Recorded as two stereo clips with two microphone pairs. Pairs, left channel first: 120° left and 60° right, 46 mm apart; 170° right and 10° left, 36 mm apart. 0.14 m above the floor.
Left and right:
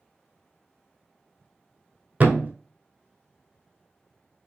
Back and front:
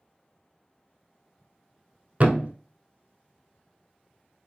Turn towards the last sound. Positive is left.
turn(degrees=-20)